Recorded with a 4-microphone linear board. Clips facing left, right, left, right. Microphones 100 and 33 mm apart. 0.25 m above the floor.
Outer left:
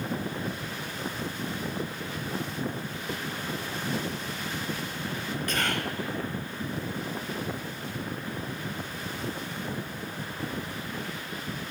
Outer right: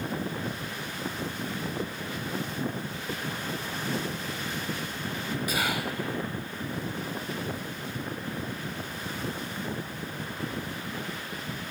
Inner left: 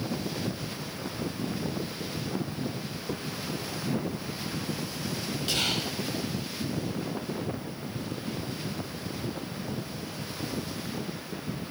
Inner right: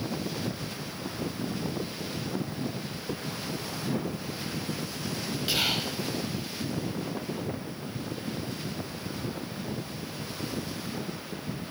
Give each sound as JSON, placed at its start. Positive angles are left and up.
{"t": 5.5, "sound": "whispering", "side_deg": -10, "distance_m": 1.0}